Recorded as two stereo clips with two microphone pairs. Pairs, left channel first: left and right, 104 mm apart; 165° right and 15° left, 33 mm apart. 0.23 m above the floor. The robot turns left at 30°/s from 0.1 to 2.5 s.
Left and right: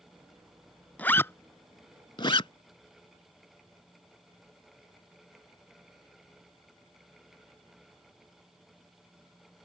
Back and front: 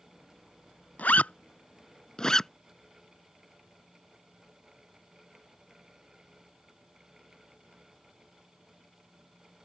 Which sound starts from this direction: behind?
A zipper, at 1.0 s.